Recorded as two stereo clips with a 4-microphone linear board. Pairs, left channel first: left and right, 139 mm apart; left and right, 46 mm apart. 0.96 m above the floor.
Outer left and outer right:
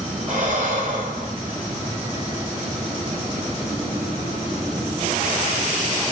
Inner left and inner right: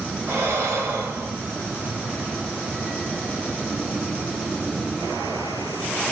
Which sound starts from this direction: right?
Breathing, at 0.3 s.